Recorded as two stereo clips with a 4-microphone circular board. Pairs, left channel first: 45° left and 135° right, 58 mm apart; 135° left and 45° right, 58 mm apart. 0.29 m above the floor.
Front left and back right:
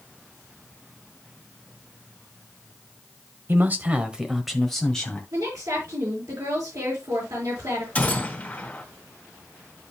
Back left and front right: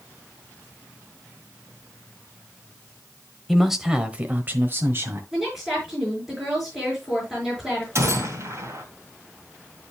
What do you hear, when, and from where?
3.5 s a man speaking: 140° right, 1.2 m; by 5.2 s 20° right, 1.5 m
5.3 s a woman speaking: 135° right, 5.5 m
8.0 s a gunshot: 20° right, 3 m